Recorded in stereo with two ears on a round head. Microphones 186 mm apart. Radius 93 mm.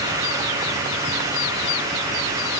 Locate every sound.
Only background noise.